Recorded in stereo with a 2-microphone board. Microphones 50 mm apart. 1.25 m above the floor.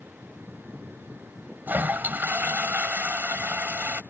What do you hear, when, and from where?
1.7 s a toilet flushing: 40° right (ahead or behind)